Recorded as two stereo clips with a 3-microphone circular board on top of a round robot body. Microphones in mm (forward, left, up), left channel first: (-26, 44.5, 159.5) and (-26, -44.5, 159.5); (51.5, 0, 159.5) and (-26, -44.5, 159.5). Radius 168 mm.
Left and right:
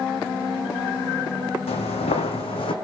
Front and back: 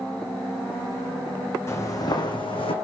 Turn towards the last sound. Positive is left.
turn(degrees=60)